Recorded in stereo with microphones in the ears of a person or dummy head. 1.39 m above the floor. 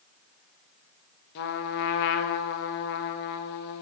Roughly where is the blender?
No blender in this recording.